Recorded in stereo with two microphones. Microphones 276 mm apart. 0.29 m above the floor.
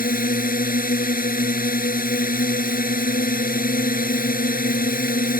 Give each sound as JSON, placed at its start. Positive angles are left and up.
{"t": 0.0, "sound": "a drone", "side_deg": 30}